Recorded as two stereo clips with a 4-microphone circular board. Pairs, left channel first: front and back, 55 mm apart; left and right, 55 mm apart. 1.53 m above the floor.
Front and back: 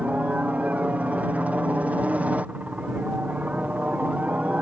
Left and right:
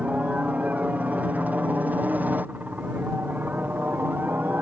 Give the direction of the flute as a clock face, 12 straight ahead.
I don't hear a flute.